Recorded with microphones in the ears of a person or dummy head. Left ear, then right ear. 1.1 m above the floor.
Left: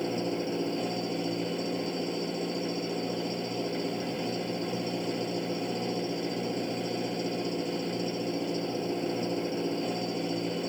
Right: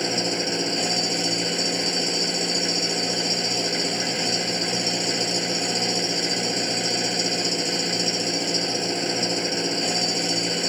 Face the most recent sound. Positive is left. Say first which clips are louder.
# right 7 dB
turn(degrees=-75)  # may be behind; listen again after turning